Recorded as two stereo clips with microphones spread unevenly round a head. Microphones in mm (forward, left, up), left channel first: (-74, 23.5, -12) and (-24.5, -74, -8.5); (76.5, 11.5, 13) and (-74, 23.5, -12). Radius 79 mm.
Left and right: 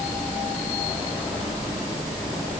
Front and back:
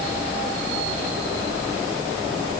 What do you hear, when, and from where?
Only background noise.